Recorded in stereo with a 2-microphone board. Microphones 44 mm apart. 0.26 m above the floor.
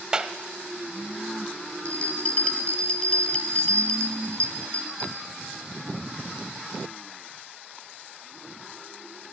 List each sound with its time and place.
0.1 s a clap: 20° right (ahead or behind), 0.8 m
1.9 s a bell: 30° left (ahead or behind), 1.3 m